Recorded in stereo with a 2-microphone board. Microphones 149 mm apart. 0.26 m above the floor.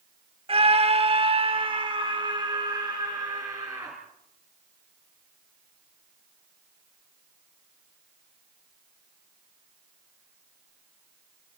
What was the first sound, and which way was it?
A scream, 40° right (ahead or behind).